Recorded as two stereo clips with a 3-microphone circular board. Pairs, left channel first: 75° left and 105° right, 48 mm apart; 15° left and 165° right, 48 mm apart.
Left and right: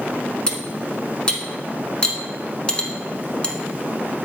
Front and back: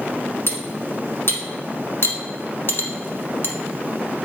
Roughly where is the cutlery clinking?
Ahead.